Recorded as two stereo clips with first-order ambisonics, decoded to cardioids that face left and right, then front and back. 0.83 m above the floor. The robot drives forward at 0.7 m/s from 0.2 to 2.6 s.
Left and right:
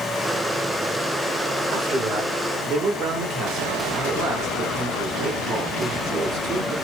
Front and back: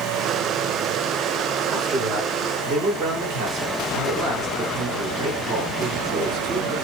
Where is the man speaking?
120° right, 2.5 m; by 6.8 s 130° right, 3 m.